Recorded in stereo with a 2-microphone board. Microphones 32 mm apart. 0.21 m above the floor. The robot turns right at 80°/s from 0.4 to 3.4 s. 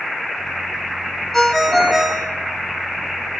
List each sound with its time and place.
1.3 s a ringtone: 10° left (ahead or behind), 0.8 m; by 2.3 s 15° right (ahead or behind), 0.8 m